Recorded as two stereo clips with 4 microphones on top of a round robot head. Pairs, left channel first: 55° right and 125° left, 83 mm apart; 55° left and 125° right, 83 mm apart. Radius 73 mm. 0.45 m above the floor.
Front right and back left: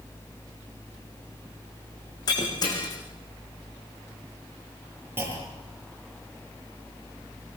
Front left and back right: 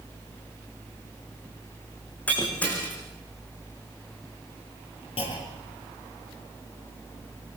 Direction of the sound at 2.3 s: 15° right.